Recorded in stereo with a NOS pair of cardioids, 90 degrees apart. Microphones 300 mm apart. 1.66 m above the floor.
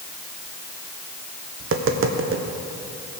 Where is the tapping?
45° right, 1.3 m.